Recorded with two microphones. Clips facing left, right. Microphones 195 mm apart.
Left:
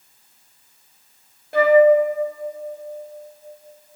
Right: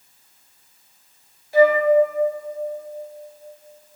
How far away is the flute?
About 1.2 m.